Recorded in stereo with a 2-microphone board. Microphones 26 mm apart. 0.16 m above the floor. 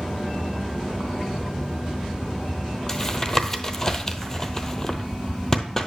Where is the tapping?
20° left (ahead or behind), 0.9 m.